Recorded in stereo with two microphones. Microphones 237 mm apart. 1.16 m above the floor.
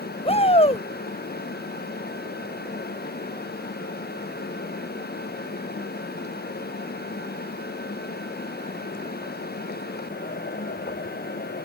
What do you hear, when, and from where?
0.2 s a shout: 25° left (ahead or behind)